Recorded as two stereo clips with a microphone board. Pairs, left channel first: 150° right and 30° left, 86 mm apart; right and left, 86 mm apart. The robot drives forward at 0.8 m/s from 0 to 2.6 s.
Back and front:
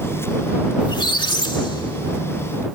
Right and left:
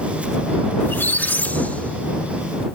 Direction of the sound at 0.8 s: 150° right.